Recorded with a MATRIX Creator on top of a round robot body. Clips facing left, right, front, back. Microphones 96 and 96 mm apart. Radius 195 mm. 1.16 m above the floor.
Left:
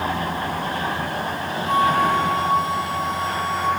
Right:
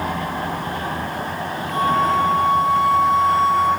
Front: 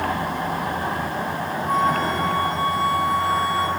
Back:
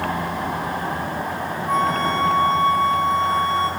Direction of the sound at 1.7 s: 80° left.